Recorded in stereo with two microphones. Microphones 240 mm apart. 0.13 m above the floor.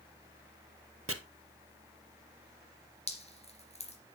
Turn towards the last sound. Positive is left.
turn(degrees=25)  # may be behind; listen again after turning